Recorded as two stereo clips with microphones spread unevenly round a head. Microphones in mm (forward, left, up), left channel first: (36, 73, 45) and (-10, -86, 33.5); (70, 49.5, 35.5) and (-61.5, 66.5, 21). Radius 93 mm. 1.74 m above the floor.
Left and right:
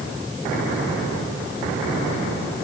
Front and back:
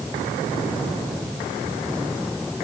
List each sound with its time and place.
Only background noise.